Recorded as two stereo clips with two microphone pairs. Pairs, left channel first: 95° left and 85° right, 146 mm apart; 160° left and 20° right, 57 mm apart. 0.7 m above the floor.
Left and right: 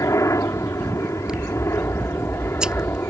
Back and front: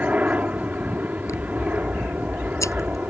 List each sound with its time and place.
0.0 s a helicopter: 35° left; by 3.1 s 25° left
1.3 s scissors: 170° right